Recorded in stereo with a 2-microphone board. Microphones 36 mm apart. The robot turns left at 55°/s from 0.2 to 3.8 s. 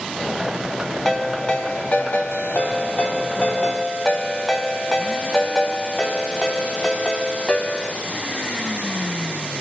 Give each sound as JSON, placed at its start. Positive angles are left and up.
{"t": 1.1, "sound": "a ringtone", "azimuth_deg": 175, "distance_m": 0.9}